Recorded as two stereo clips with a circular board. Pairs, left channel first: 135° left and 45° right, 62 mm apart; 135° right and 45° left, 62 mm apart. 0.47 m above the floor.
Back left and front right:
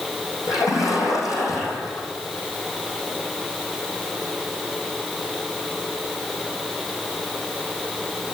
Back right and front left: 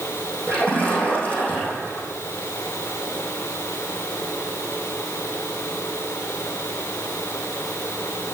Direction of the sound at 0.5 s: 160° left.